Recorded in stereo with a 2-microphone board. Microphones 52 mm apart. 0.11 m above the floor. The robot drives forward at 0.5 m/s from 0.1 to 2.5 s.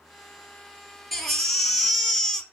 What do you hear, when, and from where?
1.1 s a baby crying: centre (ahead or behind), 1.3 m; by 2.4 s 5° left (ahead or behind), 0.9 m